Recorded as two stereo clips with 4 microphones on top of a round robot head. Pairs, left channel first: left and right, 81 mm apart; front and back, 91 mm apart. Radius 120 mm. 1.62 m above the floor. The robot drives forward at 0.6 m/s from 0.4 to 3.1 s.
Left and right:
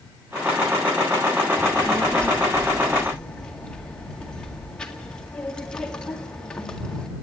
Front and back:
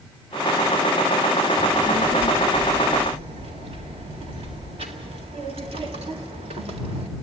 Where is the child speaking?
160° left, 1.0 m; by 7.1 s 170° left, 1.8 m.